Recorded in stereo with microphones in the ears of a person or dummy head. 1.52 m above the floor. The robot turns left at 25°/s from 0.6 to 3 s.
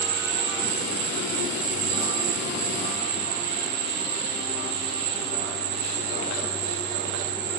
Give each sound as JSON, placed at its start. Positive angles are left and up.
{"t": 0.0, "sound": "an insect", "azimuth_deg": -55}